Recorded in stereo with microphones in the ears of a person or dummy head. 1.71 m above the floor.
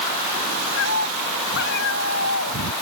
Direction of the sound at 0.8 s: 65° left (ahead or behind).